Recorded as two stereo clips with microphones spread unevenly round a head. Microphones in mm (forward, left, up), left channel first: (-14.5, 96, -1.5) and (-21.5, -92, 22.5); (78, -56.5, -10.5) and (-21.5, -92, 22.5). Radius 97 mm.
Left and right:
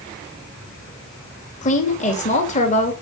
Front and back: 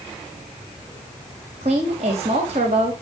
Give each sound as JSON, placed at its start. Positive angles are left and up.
{"t": 1.6, "sound": "a woman speaking", "azimuth_deg": 140, "distance_m": 3.5}